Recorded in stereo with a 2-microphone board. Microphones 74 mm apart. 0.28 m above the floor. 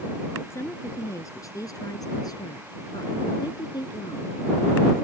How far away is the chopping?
No chopping in this recording.